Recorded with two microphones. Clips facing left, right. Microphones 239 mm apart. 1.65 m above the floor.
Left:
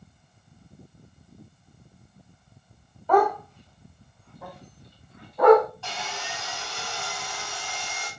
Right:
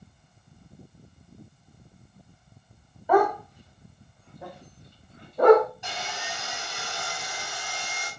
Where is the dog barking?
10° right (ahead or behind), 4.5 m; by 5.7 s 35° right (ahead or behind), 6 m.